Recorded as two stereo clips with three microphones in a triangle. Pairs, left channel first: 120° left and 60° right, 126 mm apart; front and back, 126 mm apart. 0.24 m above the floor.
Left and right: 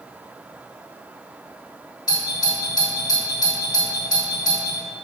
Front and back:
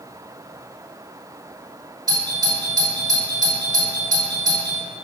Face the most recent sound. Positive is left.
turn(degrees=150)